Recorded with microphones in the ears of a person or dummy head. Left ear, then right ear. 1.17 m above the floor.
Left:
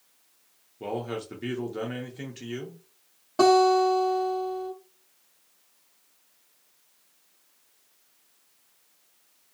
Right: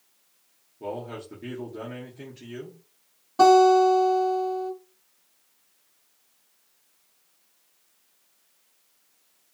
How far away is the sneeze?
I don't hear a sneeze.